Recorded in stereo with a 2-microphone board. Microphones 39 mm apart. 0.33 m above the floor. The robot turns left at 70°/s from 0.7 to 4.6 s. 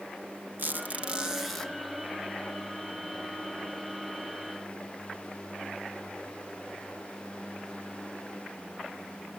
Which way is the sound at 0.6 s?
120° right.